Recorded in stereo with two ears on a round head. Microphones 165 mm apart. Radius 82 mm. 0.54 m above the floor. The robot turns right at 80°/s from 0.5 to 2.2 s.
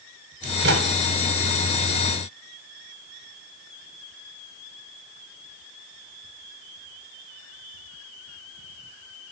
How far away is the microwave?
About 8.5 m.